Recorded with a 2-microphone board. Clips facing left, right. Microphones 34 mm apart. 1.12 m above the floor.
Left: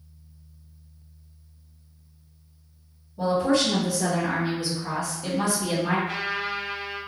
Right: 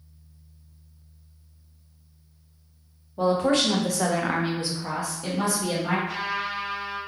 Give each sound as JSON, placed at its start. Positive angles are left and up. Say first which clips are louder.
{"t": 3.2, "sound": "a woman speaking", "louder": "even", "side_deg": -50, "distance_m": 1.1}
{"t": 6.1, "sound": "a trumpet", "louder": "even", "side_deg": 55, "distance_m": 1.2}